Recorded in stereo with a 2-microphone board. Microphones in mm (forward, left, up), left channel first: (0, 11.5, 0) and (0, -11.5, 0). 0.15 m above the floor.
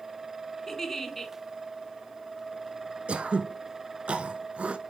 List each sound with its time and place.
0.7 s a giggle: 15° left (ahead or behind), 1.7 m
3.1 s throat clearing: 55° right (ahead or behind), 0.9 m